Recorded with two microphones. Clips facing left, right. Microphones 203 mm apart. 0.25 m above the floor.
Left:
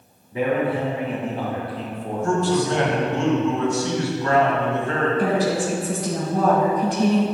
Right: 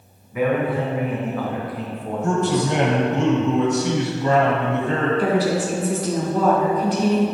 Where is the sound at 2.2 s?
20° right (ahead or behind), 1.1 m.